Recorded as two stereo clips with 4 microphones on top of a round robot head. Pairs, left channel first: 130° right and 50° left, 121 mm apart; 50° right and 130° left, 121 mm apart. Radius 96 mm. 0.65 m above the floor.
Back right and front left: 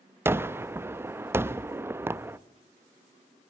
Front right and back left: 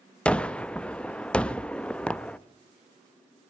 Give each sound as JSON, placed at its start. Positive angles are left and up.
{"t": 0.2, "sound": "a gunshot", "azimuth_deg": 15, "distance_m": 0.8}